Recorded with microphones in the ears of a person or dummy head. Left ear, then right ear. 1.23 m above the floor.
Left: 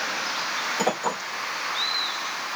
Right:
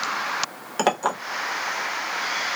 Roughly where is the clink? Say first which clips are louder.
Right 7 dB; right.